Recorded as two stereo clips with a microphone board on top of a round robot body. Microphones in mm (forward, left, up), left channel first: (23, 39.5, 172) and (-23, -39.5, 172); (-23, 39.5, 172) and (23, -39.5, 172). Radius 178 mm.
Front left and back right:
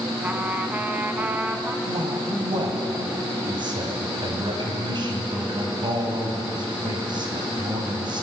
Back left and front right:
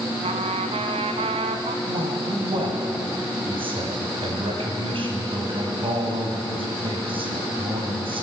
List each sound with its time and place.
0.2 s a trumpet: 45° right, 1.0 m
1.9 s a man speaking: 85° right, 4 m